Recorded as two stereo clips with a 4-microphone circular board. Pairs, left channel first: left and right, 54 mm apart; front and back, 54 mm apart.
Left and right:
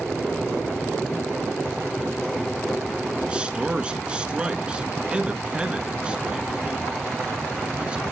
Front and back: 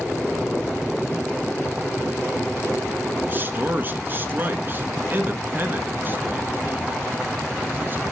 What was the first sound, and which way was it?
A man speaking, 150° right.